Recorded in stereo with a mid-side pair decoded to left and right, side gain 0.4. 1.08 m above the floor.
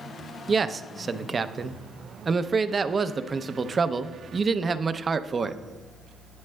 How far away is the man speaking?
About 0.5 m.